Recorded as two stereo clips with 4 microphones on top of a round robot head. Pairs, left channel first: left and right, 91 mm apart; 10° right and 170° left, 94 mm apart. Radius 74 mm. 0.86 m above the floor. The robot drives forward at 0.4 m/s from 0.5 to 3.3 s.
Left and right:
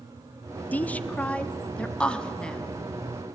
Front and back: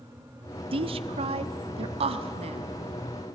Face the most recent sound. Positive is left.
turn(degrees=170)